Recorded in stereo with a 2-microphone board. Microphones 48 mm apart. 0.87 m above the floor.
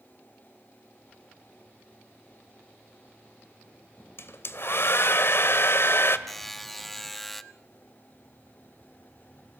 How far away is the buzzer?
About 1.1 m.